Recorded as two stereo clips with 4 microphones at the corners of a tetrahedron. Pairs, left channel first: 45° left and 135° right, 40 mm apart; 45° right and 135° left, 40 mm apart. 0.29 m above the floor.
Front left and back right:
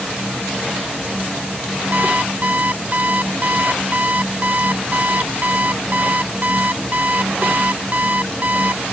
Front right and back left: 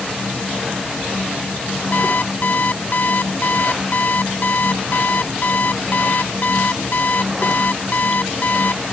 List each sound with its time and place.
1.9 s an alarm clock: 90° right